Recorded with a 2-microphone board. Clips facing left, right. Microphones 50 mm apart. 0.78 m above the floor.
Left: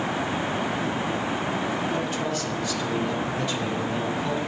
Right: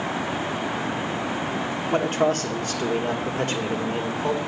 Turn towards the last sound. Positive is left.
turn(degrees=-45)  # may be behind; listen again after turning